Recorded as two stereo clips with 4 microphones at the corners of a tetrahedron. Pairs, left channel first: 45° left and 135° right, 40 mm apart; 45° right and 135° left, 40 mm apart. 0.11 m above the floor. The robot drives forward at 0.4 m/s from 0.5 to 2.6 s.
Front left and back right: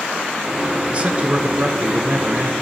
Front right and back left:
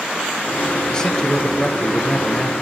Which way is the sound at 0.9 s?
100° right.